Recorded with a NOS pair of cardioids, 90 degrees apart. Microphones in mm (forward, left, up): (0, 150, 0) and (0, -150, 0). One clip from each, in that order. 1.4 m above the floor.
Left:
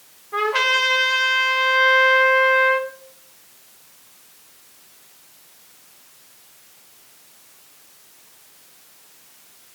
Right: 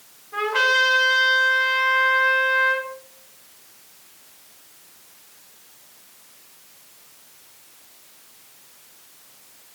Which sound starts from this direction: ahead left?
A trumpet, at 0.3 s.